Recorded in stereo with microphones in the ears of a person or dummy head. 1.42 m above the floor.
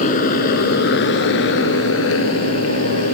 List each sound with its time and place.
0.0 s a motorcycle: 40° left (ahead or behind); by 3.1 s 80° left